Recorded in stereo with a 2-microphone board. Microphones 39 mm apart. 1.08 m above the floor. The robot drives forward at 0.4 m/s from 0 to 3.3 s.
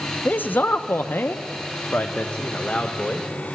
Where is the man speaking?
50° left (ahead or behind), 0.6 m; by 3.3 s 25° left (ahead or behind), 1.0 m.